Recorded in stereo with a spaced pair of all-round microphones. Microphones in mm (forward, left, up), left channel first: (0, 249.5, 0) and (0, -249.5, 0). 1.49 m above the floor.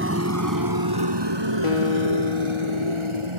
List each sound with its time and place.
0.0 s a motorcycle: 25° right (ahead or behind); by 3.4 s 75° right (ahead or behind)
1.6 s a guitar: 80° left